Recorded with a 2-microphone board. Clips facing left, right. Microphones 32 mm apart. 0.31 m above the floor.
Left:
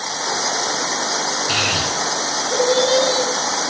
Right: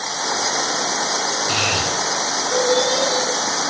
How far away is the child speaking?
About 3.5 m.